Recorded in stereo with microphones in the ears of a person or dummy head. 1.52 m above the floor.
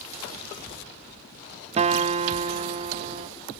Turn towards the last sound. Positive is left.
turn(degrees=-35)  # may be behind; listen again after turning